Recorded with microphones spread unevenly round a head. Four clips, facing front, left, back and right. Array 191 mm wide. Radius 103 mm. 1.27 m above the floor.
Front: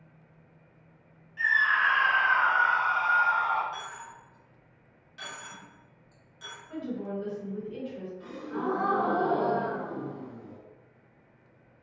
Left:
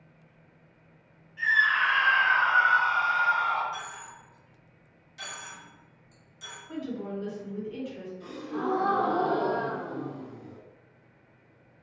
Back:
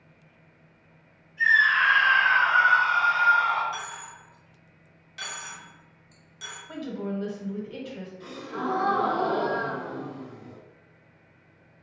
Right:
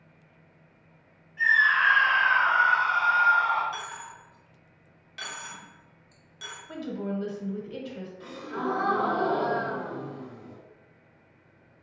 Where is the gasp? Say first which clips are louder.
Even, back 1 dB; 130° right, 1.5 m.